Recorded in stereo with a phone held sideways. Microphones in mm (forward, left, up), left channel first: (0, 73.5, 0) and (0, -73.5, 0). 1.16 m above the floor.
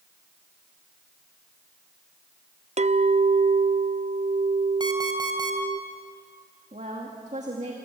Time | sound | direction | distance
2.8 | a clink | 50° right (ahead or behind) | 0.5 m
4.8 | an alarm clock | 30° right (ahead or behind) | 3 m
6.7 | a woman speaking | 50° right (ahead or behind) | 2 m